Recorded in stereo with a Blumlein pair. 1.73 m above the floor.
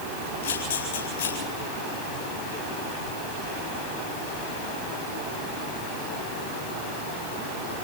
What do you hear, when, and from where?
0.4 s a camera shutter: 65° left, 9 m